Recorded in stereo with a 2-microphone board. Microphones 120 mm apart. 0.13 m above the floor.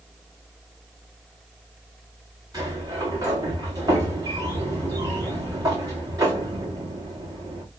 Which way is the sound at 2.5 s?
30° right (ahead or behind).